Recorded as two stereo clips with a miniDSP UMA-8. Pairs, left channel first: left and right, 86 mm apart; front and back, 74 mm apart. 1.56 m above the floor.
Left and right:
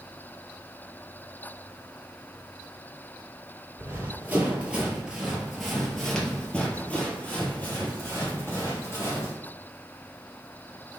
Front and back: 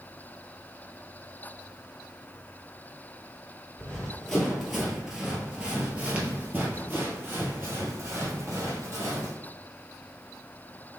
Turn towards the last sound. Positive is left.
turn(degrees=140)